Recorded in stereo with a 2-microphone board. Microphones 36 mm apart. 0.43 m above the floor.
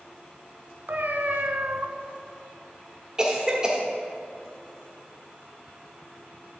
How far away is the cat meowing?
About 0.9 m.